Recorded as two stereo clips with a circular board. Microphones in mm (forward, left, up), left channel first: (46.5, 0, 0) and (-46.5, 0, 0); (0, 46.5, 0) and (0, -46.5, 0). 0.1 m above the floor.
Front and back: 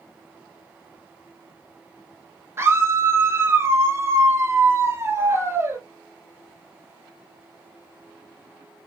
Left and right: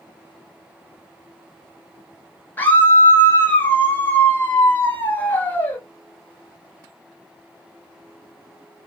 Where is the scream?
145° left, 1.4 m.